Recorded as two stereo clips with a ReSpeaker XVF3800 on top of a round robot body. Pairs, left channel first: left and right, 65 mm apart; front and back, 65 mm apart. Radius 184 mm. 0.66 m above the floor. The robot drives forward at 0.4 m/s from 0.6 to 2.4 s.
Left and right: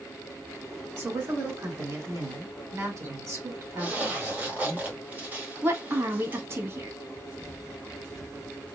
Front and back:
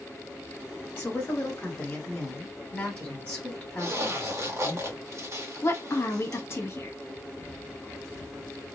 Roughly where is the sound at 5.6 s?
Ahead right.